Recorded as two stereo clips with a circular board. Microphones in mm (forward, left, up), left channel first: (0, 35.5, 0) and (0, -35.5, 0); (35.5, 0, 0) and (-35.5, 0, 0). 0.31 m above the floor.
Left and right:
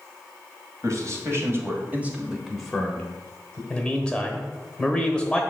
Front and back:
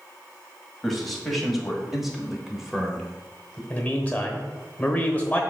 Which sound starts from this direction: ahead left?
A man speaking, at 3.7 s.